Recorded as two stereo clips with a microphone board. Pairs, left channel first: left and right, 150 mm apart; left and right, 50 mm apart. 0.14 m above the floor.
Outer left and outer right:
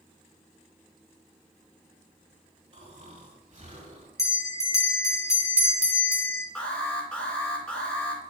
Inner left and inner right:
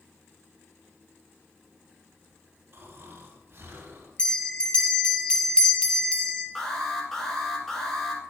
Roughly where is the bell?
Left.